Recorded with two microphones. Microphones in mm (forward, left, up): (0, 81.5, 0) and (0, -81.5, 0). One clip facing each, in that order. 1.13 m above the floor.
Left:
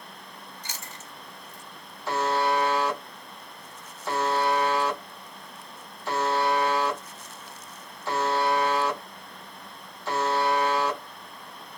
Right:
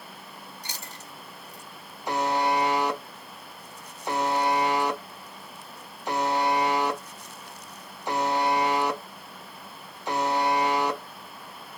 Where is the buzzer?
15° right (ahead or behind), 0.7 m.